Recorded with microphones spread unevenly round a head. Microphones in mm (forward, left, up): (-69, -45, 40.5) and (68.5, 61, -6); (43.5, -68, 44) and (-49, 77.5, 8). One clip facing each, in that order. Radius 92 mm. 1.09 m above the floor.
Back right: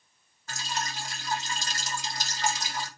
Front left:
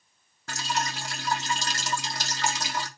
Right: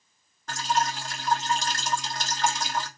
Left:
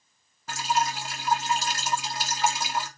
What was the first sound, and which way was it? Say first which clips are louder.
Dripping: front left 4 dB, even; 45° left.